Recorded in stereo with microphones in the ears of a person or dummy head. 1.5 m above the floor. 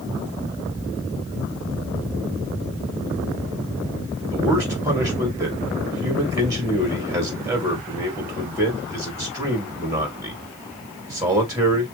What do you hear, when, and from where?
4.3 s a man speaking: 15° right (ahead or behind), 2.5 m